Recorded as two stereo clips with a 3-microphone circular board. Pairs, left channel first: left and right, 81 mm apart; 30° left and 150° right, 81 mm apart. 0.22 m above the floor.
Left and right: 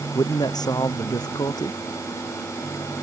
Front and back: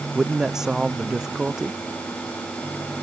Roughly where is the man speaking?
Behind left.